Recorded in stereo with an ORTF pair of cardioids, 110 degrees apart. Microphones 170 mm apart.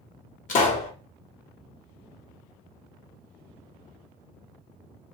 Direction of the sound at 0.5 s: 50° left.